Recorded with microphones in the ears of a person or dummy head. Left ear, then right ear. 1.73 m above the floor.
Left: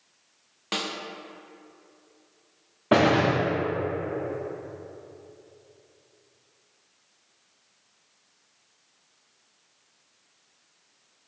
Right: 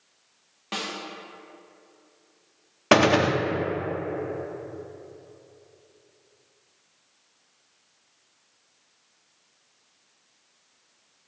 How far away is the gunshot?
About 0.8 m.